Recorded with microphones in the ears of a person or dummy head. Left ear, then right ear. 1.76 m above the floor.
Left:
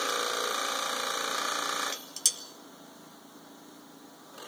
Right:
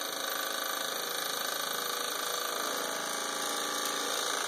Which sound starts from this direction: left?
Dishes clattering, at 1.8 s.